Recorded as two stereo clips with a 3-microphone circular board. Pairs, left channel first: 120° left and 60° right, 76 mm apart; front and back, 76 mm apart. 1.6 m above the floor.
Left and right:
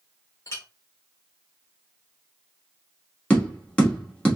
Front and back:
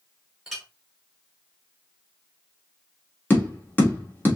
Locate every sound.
0.5 s a clink: 90° left, 1.1 m
3.3 s tapping: 55° left, 1.3 m